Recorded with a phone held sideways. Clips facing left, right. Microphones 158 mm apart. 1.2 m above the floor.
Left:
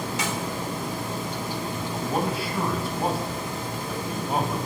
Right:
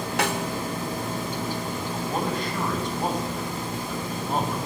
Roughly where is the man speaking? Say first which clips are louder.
Left 1 dB; centre.